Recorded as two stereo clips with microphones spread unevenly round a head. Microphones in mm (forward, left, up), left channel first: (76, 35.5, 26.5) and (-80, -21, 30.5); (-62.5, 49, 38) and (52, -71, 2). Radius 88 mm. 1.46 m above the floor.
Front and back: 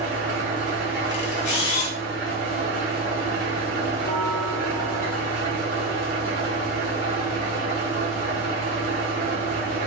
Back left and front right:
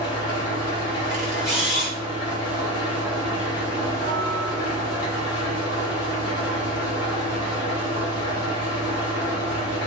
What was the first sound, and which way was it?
An engine running, 155° left.